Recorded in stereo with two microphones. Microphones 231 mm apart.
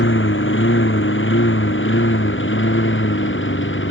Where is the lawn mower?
60° left (ahead or behind); by 3.9 s 55° left (ahead or behind).